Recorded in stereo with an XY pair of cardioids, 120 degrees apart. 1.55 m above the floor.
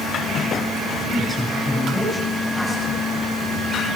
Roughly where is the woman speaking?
Ahead.